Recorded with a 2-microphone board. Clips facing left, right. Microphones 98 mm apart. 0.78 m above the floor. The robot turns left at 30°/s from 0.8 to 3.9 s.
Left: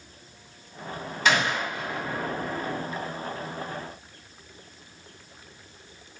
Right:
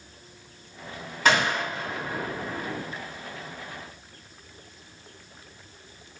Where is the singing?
No singing in this recording.